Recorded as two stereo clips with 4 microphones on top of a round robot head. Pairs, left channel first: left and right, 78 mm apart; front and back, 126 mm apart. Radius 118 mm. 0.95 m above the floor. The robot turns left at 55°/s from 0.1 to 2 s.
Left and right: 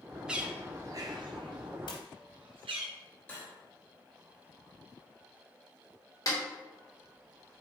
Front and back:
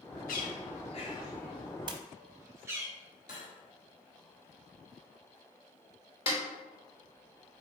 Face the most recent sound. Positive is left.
turn(degrees=45)